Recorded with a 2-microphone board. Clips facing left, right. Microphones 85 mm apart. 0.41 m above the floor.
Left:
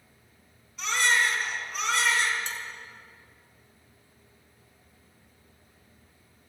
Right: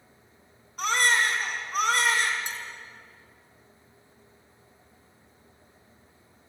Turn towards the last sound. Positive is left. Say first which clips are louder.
# even
turn(degrees=-15)  # may be behind; listen again after turning